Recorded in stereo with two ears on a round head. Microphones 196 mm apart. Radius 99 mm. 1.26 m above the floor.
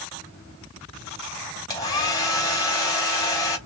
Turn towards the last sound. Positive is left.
turn(degrees=15)  # may be behind; listen again after turning